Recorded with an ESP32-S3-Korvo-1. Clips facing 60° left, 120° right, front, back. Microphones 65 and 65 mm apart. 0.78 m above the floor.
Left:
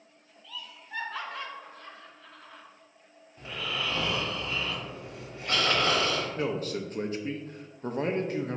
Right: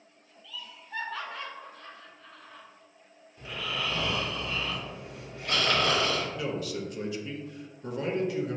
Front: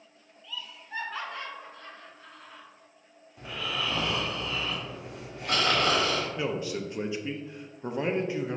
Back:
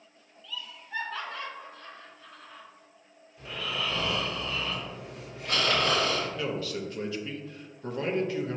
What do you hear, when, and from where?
0.4 s laughter: 60° left, 1.5 m
3.4 s snoring: straight ahead, 1.6 m
6.4 s a man speaking: 60° left, 0.5 m